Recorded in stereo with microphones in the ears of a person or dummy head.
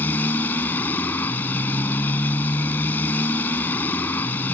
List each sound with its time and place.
0.0 s a motorcycle: 15° left (ahead or behind)